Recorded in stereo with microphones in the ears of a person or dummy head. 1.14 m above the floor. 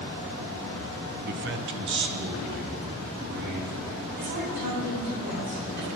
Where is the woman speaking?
55° right (ahead or behind), 4.5 m.